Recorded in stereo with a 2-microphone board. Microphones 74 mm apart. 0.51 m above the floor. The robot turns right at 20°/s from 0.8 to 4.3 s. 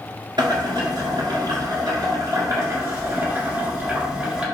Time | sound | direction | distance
0.4 | boiling | 80° right | 1.7 m